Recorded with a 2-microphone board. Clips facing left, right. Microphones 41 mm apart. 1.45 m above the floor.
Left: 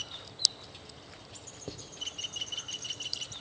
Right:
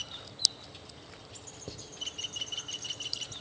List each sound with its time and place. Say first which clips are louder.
1.7 s writing: left 2 dB; 5° left (ahead or behind), 2 m